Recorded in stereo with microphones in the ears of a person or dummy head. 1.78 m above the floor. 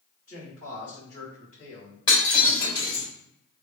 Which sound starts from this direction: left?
Breaking glass, at 2.1 s.